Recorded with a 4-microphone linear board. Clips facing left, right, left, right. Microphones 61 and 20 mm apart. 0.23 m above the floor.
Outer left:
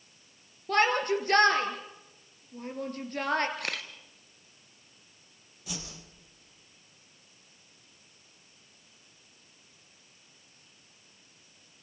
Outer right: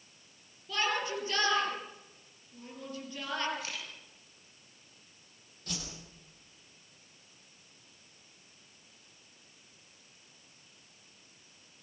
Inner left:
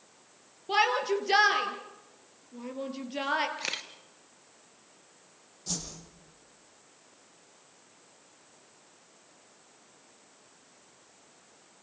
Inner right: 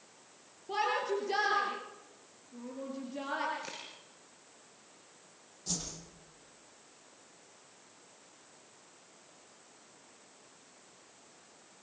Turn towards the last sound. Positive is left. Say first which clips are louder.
# outer left 1 dB, inner left 2 dB
turn(degrees=10)  # may be behind; listen again after turning